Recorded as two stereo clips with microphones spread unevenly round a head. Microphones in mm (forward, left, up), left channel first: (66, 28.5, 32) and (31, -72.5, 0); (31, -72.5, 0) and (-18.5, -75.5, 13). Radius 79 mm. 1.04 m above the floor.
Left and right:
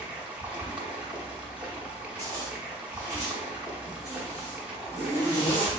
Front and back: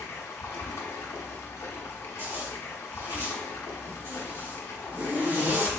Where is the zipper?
Straight behind, 1.9 m.